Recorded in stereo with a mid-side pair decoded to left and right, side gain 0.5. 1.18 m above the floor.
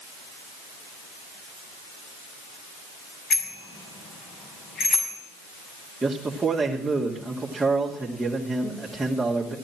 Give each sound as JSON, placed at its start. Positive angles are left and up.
{"t": 3.3, "sound": "a bicycle bell", "azimuth_deg": 55, "distance_m": 6.0}
{"t": 6.0, "sound": "a man speaking", "azimuth_deg": -20, "distance_m": 2.5}